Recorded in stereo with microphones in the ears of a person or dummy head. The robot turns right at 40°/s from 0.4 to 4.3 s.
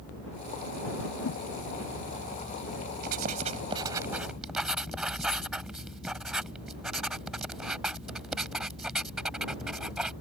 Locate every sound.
1.2 s a whoosh: 65° left (ahead or behind); by 1.4 s 55° left (ahead or behind)
3.0 s writing: 50° right (ahead or behind); by 10.1 s centre (ahead or behind)